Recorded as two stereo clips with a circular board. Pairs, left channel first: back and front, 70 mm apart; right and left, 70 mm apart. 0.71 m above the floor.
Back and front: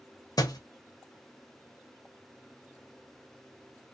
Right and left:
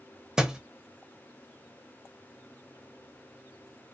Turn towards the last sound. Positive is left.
turn(degrees=170)